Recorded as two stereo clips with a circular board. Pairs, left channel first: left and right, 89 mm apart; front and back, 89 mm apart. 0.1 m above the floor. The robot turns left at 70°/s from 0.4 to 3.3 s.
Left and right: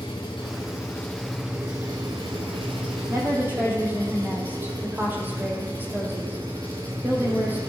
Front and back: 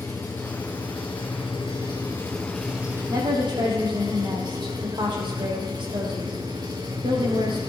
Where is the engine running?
65° left, 3 m; by 7.7 s 135° right, 3 m.